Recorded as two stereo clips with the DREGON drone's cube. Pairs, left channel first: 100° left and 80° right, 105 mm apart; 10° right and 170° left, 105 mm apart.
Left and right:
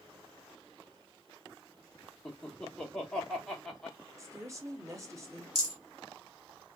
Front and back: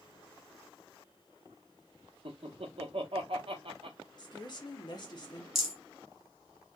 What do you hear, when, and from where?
2.2 s laughter: straight behind, 1.0 m
4.2 s a woman speaking: 35° right, 0.9 m
5.5 s a rattle: 105° right, 1.5 m